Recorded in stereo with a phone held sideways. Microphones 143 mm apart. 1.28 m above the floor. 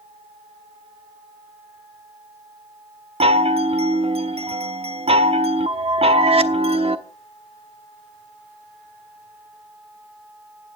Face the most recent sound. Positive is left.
turn(degrees=-45)  # may be behind; listen again after turning